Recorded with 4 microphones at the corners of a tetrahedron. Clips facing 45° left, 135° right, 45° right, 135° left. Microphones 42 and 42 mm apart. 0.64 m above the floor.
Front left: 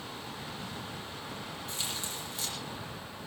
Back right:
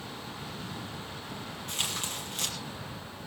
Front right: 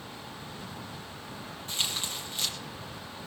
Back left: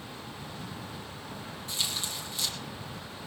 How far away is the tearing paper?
About 6.5 m.